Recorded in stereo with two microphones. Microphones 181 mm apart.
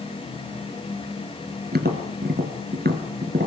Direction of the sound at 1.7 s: 65° right (ahead or behind).